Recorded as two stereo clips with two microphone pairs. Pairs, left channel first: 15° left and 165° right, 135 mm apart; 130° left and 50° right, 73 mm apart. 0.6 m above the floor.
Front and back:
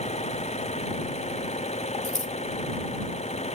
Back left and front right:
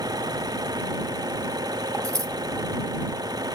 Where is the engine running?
25° right.